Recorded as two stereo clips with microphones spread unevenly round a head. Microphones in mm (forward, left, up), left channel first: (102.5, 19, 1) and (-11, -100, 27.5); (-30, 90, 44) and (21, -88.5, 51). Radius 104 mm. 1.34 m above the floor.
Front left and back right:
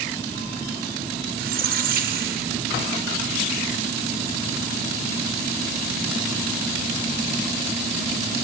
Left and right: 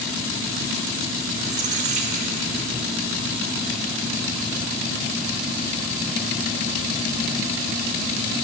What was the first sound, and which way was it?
A squeak, 125° right.